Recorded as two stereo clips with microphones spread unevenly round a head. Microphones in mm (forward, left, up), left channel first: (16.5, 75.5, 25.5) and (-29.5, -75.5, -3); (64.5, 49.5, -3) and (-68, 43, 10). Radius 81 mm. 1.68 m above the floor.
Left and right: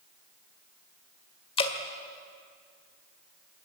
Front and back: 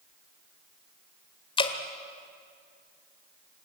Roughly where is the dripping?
Ahead left.